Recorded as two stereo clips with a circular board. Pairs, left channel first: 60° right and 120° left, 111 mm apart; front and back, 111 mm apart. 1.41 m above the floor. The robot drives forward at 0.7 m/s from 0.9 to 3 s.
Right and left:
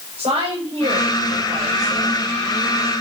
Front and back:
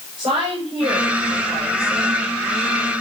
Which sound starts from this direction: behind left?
A woman speaking, at 0.2 s.